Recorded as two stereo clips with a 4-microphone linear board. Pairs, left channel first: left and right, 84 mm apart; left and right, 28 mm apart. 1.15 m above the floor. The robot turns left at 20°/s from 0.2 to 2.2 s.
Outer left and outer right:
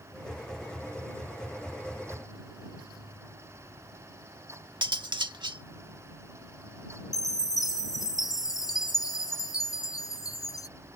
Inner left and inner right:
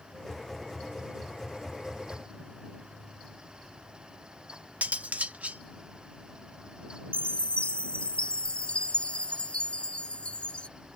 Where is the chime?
50° left (ahead or behind).